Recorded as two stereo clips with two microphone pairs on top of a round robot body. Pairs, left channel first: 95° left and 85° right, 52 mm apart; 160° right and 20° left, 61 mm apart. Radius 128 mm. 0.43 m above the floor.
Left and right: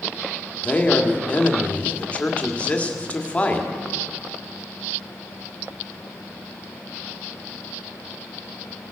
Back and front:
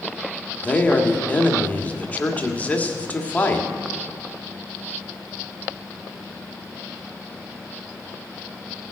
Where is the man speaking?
145° left, 1.6 m.